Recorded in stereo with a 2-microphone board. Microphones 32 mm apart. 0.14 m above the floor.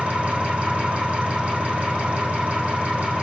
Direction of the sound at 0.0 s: 40° right (ahead or behind).